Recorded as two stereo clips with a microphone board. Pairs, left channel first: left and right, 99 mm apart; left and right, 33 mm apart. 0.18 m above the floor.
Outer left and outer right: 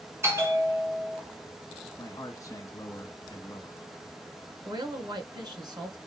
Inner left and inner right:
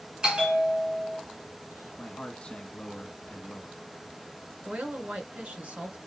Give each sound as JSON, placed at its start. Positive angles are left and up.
{"t": 0.2, "sound": "a bell", "side_deg": -25, "distance_m": 1.6}
{"t": 2.0, "sound": "a man speaking", "side_deg": 35, "distance_m": 1.7}
{"t": 4.7, "sound": "a woman speaking", "side_deg": -45, "distance_m": 1.9}